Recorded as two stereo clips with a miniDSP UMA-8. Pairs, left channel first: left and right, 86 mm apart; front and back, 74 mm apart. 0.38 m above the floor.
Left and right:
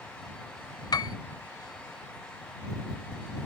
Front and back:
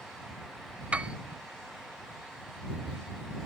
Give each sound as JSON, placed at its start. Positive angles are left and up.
{"t": 0.9, "sound": "a piano", "azimuth_deg": 110}